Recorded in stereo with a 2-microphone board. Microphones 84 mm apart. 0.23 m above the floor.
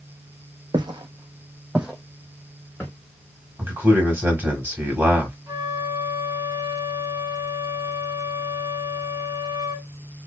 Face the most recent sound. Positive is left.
turn(degrees=-45)  # may be behind; listen again after turning